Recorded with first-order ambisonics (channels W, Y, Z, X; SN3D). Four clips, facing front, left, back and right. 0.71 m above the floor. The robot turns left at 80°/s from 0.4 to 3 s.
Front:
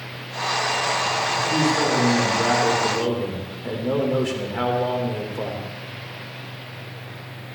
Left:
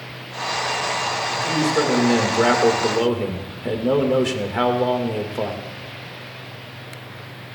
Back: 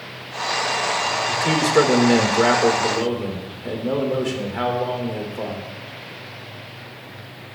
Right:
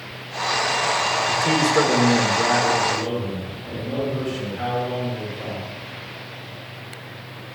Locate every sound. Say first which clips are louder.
1.3 s a man speaking: right 2 dB, back 3 dB; 130° right, 2.5 m; by 5.6 s 90° left, 2.5 m